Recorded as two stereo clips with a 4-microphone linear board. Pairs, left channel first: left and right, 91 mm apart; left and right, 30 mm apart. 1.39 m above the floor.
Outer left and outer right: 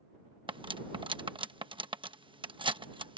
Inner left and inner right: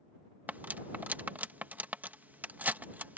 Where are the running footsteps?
I don't hear running footsteps.